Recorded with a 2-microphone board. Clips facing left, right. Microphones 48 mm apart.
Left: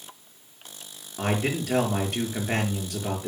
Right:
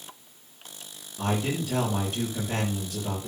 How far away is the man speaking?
About 5 m.